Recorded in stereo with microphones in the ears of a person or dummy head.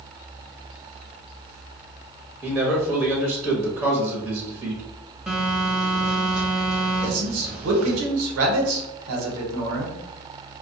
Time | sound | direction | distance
2.4 | a man speaking | centre (ahead or behind) | 0.8 m
5.3 | a phone buzzing | 5° right (ahead or behind) | 0.8 m
7.0 | a man speaking | 85° right | 0.9 m